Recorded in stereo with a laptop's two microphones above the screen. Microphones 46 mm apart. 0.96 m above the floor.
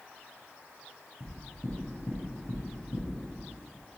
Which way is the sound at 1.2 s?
65° left (ahead or behind).